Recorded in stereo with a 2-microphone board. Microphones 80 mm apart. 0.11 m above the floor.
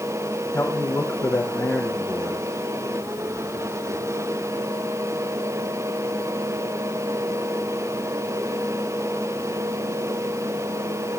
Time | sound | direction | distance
0.5 | a man speaking | 25° left (ahead or behind) | 5 m